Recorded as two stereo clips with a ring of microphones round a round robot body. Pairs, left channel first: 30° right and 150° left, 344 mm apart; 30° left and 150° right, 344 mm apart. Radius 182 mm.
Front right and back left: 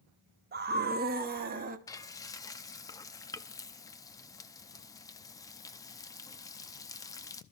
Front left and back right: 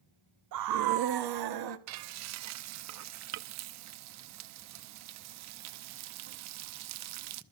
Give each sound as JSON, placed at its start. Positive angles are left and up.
{"t": 0.5, "sound": "a scream", "azimuth_deg": -155, "distance_m": 0.6}
{"t": 1.9, "sound": "frying", "azimuth_deg": -110, "distance_m": 0.6}